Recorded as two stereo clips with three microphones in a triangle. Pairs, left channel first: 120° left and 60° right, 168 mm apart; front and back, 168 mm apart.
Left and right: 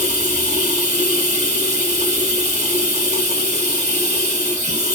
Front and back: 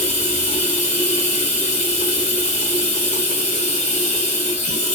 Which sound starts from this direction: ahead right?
Running water, at 0.0 s.